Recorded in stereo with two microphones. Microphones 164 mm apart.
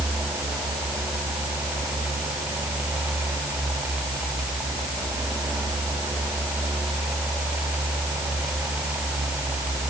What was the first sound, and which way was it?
Only background noise.